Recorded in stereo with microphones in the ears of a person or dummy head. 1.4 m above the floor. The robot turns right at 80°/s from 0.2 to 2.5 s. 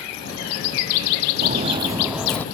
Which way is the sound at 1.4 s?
45° right (ahead or behind).